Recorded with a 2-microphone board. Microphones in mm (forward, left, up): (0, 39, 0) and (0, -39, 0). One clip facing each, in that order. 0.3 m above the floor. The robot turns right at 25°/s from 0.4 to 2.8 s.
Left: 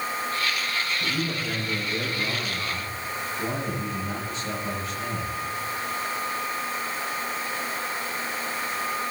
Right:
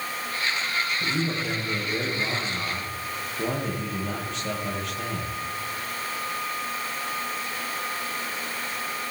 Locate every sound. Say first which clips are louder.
1.0 s a man speaking: right 1 dB; 145° right, 10 m; by 5.3 s 100° right, 10 m